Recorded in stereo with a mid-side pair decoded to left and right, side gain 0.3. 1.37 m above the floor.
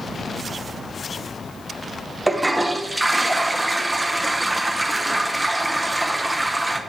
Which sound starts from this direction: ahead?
A toilet flushing, at 2.3 s.